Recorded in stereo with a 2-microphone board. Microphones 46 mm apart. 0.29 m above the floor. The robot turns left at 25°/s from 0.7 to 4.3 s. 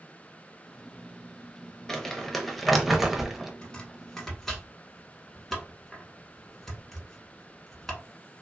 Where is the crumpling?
10° left (ahead or behind), 0.5 m; by 3.5 s 5° right (ahead or behind), 0.5 m.